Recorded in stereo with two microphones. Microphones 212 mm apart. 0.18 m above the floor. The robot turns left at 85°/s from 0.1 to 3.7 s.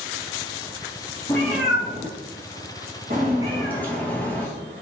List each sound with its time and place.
1.3 s a cat meowing: 15° left (ahead or behind), 1.8 m; by 4.8 s 10° left (ahead or behind), 1.8 m